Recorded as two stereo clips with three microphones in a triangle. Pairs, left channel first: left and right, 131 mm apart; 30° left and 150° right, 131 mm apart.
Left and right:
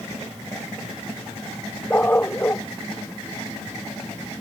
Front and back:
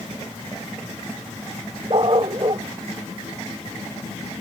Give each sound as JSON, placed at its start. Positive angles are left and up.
{"t": 1.9, "sound": "a dog barking", "azimuth_deg": 165}